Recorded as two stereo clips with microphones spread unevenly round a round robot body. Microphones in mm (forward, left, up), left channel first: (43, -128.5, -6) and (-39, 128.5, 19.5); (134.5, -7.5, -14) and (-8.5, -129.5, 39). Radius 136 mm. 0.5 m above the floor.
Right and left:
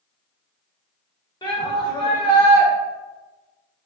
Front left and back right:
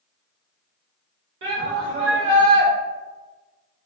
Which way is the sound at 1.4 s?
140° right.